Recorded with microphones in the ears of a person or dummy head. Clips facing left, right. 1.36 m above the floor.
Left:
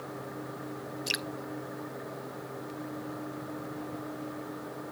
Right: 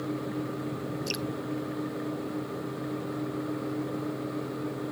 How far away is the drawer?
I don't hear a drawer.